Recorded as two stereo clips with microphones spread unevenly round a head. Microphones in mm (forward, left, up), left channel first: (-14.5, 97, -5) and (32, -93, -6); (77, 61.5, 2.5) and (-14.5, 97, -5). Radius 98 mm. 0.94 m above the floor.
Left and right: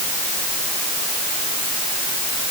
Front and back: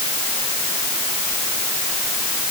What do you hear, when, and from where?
Only background noise.